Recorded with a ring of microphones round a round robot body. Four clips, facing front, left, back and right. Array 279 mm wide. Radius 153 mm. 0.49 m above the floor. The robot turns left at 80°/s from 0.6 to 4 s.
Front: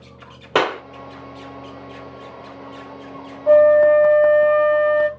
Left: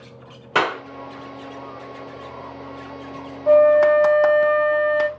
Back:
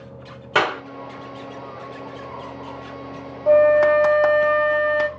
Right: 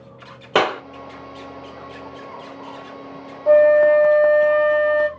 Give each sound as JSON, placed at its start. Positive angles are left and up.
{"t": 0.6, "sound": "a clap", "azimuth_deg": -45, "distance_m": 1.1}
{"t": 3.5, "sound": "a flute", "azimuth_deg": -140, "distance_m": 1.2}